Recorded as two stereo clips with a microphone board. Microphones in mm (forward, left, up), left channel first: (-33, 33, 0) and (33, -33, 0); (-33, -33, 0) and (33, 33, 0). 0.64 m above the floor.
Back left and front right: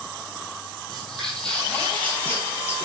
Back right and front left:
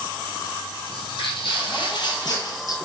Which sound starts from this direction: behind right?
Footsteps, at 0.9 s.